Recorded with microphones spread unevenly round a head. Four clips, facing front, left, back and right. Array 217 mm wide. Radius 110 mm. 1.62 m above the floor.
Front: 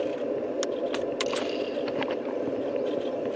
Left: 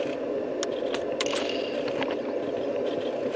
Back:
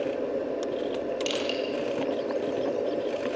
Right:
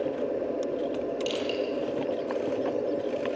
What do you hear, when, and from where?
1.3 s crushing: 160° left, 8.5 m